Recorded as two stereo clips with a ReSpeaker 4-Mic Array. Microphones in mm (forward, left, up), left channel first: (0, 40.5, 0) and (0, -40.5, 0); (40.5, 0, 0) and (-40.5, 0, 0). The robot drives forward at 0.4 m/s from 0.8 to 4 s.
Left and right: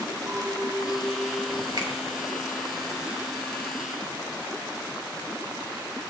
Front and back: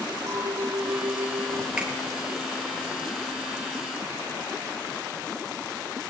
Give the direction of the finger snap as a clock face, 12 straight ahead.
3 o'clock.